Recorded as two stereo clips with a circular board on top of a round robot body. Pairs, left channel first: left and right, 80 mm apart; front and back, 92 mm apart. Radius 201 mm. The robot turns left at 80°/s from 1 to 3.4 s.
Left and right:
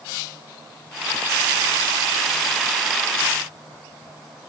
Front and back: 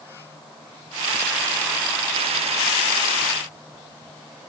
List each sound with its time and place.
Only background noise.